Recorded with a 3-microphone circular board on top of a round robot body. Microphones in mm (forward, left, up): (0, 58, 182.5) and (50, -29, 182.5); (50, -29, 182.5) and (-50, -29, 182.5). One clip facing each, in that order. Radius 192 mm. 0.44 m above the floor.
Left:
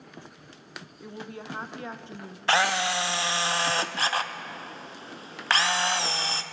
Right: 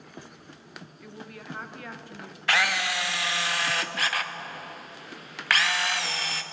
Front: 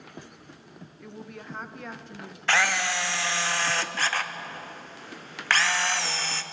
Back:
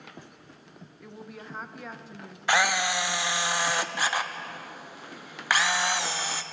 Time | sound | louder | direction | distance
1.0 | a woman speaking | left 5 dB, front 1 dB | 95° left | 0.9 m
2.5 | a camera shutter | left 3 dB, back 1 dB | 120° left | 0.7 m